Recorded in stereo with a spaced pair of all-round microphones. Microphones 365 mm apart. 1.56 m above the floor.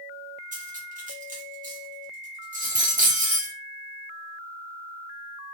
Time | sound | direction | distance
0.5 | cutlery clinking | 20° right (ahead or behind) | 0.7 m